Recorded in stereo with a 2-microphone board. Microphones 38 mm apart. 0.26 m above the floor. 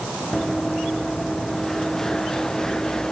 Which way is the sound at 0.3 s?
5° left (ahead or behind).